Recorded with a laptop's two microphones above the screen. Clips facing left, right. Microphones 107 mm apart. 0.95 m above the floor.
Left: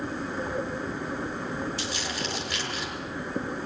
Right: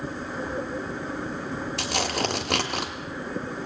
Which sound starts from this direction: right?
Tearing paper, at 1.8 s.